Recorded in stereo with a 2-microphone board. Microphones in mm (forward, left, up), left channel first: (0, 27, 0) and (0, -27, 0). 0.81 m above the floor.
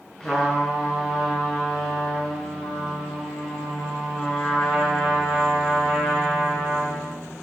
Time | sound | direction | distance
0.2 | a trumpet | 15° left (ahead or behind) | 8 m